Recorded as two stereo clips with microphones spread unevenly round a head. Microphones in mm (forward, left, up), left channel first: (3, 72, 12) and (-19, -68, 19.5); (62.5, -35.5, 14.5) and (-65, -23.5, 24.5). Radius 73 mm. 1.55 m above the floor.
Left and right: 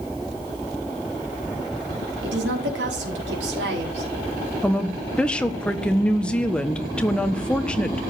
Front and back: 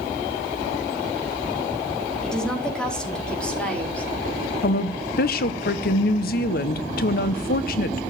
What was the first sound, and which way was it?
A woman speaking, 90° right.